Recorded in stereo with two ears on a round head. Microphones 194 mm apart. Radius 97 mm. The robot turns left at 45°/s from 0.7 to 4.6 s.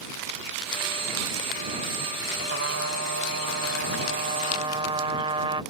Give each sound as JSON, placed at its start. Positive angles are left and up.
{"t": 2.5, "sound": "a trumpet", "azimuth_deg": -60}